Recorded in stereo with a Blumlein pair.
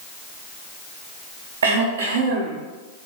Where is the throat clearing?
65° right, 0.5 m.